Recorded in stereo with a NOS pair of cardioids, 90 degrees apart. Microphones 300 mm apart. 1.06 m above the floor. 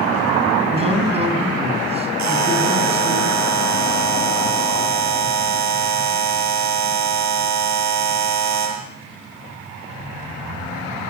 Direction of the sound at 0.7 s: 20° right.